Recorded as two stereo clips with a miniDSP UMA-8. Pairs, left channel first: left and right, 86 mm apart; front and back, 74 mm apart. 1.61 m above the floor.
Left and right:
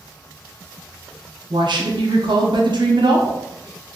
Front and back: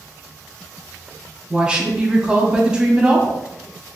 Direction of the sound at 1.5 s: 105° right.